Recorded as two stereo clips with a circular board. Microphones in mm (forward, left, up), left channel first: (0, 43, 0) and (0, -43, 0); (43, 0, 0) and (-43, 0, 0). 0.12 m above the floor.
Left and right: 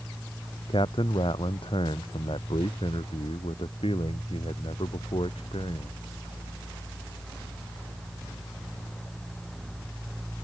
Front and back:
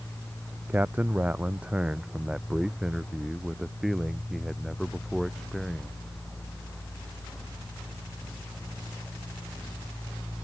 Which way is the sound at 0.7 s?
110° left.